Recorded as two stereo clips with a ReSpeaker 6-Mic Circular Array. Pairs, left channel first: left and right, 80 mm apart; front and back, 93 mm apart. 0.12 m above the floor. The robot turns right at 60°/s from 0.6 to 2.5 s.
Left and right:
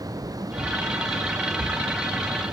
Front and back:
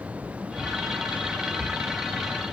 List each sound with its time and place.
Only background noise.